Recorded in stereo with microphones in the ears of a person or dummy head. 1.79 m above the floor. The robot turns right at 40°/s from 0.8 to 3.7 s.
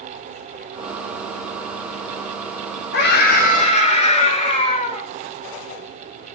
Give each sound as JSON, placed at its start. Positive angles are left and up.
{"t": 2.9, "sound": "a scream", "azimuth_deg": 115, "distance_m": 1.9}